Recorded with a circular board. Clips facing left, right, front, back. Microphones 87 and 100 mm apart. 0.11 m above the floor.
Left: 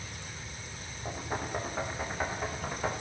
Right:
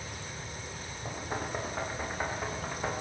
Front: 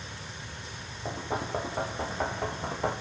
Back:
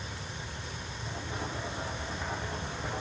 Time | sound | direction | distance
1.1 | knocking | straight ahead | 9.5 m